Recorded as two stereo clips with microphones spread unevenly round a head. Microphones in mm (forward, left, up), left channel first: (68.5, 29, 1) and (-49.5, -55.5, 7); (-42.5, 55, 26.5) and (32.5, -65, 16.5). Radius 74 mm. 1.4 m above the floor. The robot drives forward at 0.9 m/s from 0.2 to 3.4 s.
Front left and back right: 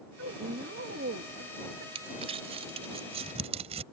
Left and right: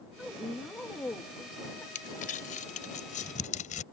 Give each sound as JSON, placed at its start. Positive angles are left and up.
{"t": 0.2, "sound": "a woman speaking", "azimuth_deg": -150}
{"t": 1.9, "sound": "crumpling", "azimuth_deg": 160}